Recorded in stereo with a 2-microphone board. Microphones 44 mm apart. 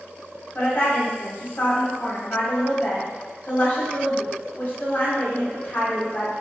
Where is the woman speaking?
50° left (ahead or behind), 1.0 m.